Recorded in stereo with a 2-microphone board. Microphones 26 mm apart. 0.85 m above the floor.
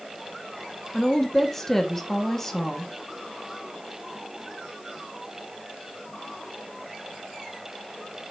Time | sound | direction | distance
0.9 | a woman speaking | 15° left (ahead or behind) | 1.6 m